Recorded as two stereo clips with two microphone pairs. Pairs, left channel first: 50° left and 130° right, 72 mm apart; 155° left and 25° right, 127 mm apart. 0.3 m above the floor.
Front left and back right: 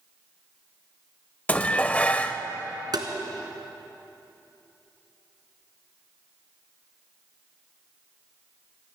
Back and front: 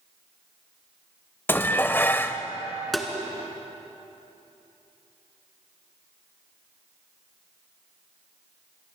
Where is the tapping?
110° right, 1.6 m.